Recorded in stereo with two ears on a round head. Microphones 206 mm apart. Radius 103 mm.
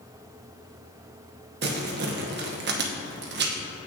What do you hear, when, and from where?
1.6 s crumpling: 50° right (ahead or behind), 0.9 m